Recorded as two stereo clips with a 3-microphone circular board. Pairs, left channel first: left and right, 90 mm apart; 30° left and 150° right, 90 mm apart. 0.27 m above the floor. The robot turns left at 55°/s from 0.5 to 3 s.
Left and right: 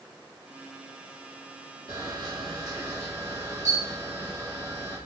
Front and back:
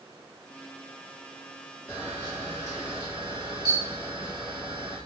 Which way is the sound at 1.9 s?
75° right.